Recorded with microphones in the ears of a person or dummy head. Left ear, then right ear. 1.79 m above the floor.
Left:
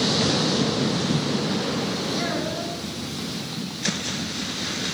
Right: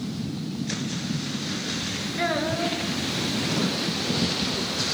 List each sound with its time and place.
2.2 s a child speaking: 10° right (ahead or behind), 1.7 m